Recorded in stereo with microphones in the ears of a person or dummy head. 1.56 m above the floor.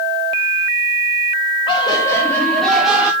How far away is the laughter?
About 1.9 m.